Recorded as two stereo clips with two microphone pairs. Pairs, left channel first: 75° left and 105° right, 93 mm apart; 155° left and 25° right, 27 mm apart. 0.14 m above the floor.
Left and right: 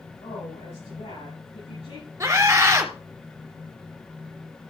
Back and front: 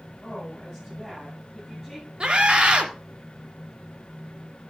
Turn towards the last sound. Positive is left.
turn(degrees=-60)